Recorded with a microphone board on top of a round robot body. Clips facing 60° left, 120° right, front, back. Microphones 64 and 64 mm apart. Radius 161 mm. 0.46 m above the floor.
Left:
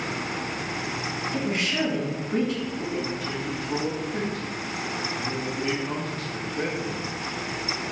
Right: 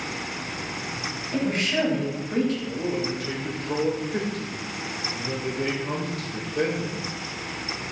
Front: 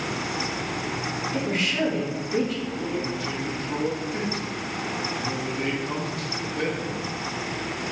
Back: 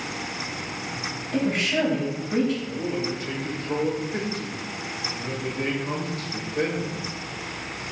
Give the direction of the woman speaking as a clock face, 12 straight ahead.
5 o'clock.